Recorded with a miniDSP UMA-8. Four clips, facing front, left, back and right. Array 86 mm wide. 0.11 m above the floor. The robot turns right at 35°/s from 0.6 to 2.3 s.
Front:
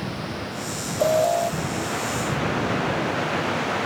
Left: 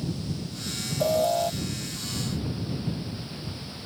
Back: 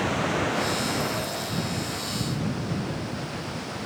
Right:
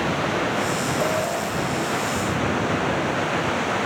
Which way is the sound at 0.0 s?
115° right.